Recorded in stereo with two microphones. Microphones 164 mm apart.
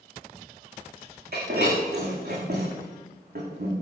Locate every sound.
1.3 s breaking glass: 75° right (ahead or behind), 7 m